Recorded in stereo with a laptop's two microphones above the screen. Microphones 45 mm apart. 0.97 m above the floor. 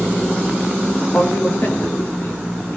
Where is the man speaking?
45° left (ahead or behind), 1.5 m; by 2.8 s 55° left (ahead or behind), 3.5 m.